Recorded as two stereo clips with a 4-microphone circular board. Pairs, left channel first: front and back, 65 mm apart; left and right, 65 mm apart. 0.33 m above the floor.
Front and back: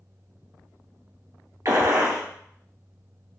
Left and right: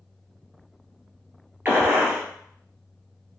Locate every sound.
1.6 s a gunshot: 150° right, 1.7 m